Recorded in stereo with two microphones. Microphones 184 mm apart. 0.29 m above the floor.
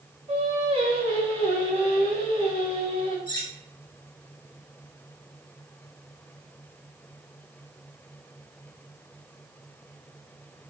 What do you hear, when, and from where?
0.3 s singing: 30° right (ahead or behind), 1.0 m
3.3 s cutlery clinking: 25° left (ahead or behind), 0.6 m